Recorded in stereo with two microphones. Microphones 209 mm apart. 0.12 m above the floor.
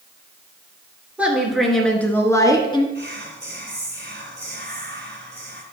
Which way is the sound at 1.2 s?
5° right (ahead or behind).